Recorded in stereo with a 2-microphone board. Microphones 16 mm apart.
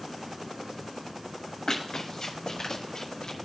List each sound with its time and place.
1.7 s running footsteps: 40° left (ahead or behind), 2.5 m; by 3.4 s 45° left (ahead or behind), 1.7 m